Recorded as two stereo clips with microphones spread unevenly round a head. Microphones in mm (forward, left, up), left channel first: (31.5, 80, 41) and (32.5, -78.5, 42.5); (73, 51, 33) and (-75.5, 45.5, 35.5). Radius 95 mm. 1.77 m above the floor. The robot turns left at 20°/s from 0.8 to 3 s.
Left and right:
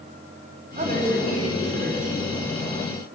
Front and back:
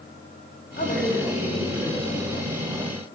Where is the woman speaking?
45° right, 3.5 m; by 2.2 s 75° right, 3.5 m.